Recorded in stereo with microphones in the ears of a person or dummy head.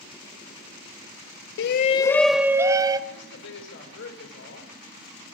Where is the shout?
75° left (ahead or behind), 0.6 m; by 3.0 s 20° right (ahead or behind), 1.3 m.